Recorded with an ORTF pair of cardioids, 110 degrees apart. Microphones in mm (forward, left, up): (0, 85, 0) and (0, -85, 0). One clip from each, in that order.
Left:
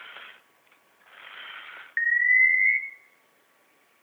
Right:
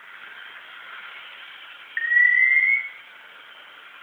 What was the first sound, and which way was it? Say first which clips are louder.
An alarm: right 3 dB; 10° right.